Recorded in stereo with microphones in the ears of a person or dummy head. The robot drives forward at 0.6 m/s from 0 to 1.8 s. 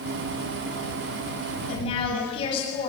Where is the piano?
I don't hear a piano.